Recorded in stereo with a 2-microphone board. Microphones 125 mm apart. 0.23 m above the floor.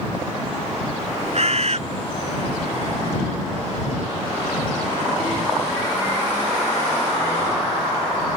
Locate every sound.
1.4 s a bird: 60° right (ahead or behind)